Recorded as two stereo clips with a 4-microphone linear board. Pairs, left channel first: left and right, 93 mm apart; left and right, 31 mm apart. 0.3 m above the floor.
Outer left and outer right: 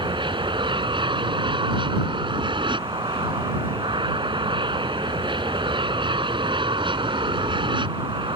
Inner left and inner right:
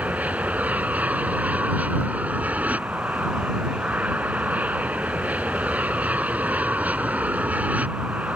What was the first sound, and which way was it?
An aircraft, 60° right (ahead or behind).